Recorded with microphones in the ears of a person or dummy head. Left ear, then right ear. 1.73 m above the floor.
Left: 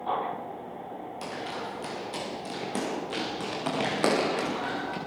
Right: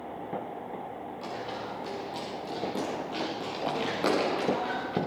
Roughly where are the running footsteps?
Left.